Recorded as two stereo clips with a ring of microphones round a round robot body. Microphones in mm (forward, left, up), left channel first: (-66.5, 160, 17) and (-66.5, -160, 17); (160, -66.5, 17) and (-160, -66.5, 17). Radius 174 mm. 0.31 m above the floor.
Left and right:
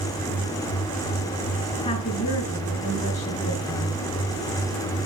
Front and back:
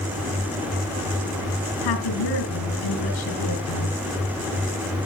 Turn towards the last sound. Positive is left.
turn(degrees=20)